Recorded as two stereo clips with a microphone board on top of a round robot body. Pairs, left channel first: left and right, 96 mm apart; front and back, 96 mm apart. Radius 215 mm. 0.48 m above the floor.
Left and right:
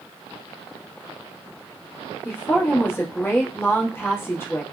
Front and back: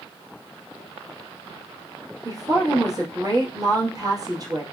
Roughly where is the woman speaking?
Behind left.